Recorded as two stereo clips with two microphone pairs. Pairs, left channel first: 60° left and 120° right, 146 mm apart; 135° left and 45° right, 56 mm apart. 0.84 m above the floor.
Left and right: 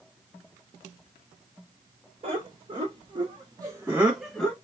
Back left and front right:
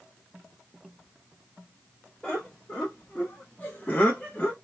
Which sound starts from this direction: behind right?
Laughter, at 2.2 s.